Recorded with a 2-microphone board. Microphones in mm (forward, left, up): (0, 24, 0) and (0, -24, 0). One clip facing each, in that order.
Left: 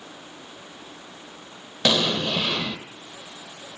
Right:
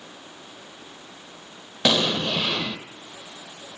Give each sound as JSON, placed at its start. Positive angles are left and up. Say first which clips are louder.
{"t": 1.9, "sound": "an explosion", "louder": "even", "side_deg": -10, "distance_m": 0.7}